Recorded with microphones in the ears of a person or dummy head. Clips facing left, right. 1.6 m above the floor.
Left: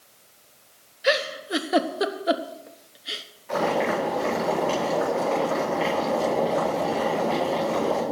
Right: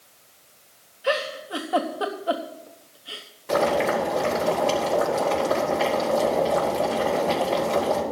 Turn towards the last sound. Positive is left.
turn(degrees=-55)  # may be behind; listen again after turning